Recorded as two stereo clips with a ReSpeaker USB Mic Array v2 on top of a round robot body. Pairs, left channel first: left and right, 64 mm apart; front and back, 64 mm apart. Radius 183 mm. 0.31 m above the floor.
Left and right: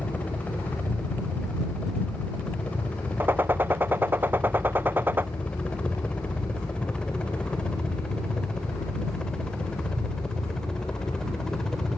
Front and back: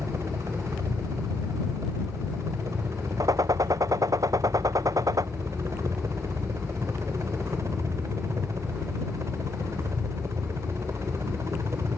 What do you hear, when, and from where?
0.0 s a helicopter: 155° left; by 12.0 s 170° left
3.2 s a gunshot: 150° right